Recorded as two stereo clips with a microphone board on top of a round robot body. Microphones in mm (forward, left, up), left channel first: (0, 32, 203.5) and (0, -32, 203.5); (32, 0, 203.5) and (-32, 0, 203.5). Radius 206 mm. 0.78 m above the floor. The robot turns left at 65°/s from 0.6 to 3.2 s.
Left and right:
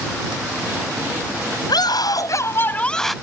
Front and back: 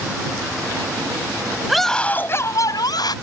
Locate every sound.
1.7 s a scream: 95° left; by 3.1 s straight ahead